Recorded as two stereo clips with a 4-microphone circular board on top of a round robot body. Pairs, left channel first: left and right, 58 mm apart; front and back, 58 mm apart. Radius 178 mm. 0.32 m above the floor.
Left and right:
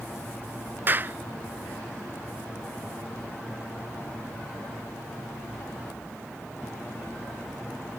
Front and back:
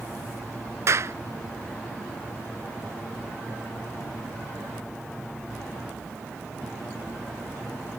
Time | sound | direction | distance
0.9 | a clap | 145° right | ?